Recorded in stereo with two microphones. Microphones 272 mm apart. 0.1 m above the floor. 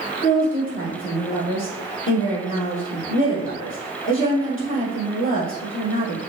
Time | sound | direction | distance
0.2 | a woman speaking | 45° left (ahead or behind) | 2.5 m